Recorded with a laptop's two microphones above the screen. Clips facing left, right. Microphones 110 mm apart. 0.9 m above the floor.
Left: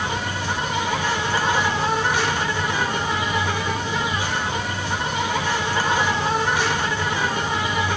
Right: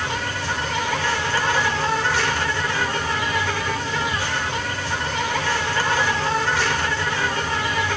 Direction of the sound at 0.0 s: 15° left (ahead or behind).